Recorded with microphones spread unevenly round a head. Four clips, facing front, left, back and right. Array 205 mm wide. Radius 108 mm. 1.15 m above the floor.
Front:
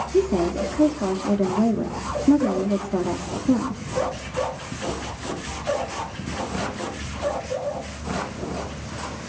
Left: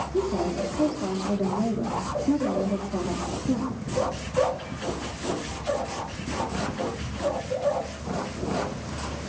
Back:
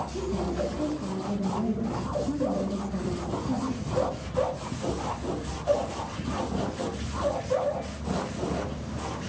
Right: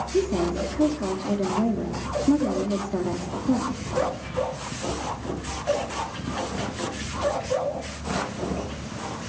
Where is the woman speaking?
15° right, 3 m.